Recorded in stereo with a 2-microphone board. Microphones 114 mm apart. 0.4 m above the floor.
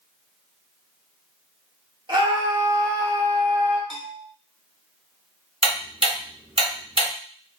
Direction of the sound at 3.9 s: Centre (ahead or behind).